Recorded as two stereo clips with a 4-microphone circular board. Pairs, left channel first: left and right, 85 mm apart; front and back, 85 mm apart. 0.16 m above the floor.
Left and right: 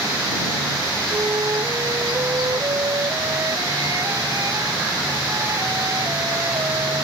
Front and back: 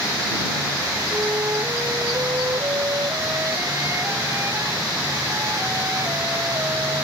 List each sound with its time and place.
1.1 s a flute: 130° right